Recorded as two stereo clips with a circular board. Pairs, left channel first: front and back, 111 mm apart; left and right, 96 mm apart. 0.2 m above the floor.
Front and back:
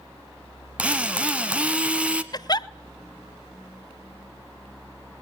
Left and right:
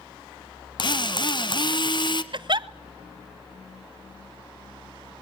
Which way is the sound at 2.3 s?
55° right.